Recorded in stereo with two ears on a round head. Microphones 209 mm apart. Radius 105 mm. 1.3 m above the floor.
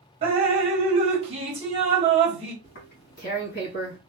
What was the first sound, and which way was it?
Dripping, 25° right (ahead or behind).